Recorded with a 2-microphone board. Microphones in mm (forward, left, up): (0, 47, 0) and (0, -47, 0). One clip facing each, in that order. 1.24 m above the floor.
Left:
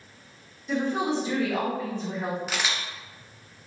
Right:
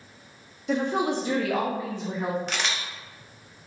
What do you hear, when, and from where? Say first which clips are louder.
0.7 s a woman speaking: right 1 dB; 65° right (ahead or behind), 1.0 m; by 2.4 s 5° right (ahead or behind), 1.2 m
2.5 s a camera shutter: even; 5° left (ahead or behind), 0.6 m